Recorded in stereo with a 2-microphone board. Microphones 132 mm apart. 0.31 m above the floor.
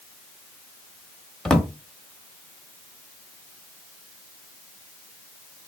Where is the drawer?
5° left (ahead or behind), 0.6 m.